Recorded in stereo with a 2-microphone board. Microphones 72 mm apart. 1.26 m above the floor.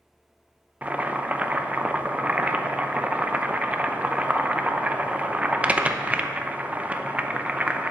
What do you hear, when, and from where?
0.8 s boiling: 20° right (ahead or behind), 0.7 m